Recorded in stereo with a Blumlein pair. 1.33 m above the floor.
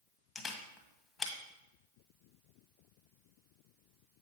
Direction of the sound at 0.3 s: 15° left.